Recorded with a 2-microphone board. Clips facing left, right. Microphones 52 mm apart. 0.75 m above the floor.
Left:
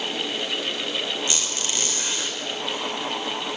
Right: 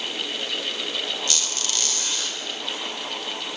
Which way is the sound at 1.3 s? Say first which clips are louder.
Left 1 dB; 25° left (ahead or behind).